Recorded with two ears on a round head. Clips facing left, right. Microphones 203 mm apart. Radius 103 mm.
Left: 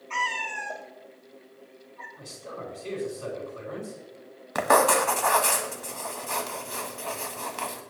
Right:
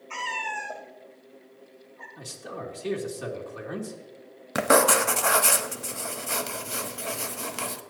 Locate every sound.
0.1 s a cat meowing: 15° right (ahead or behind), 1.6 m
2.2 s a man speaking: 80° right, 2.5 m
4.5 s writing: 35° right (ahead or behind), 1.0 m